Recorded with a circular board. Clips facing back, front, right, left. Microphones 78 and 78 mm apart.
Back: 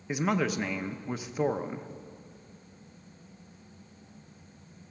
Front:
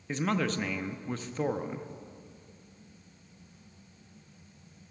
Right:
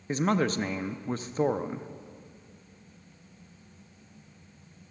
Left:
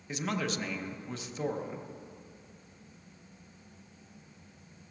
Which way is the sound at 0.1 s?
105° right.